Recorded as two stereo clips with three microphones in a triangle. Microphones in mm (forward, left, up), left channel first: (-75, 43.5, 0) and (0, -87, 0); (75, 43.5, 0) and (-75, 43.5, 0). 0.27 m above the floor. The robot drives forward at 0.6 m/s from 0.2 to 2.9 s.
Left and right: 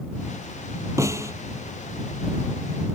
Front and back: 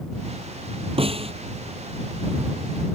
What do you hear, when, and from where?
1.0 s a snare drum: 130° right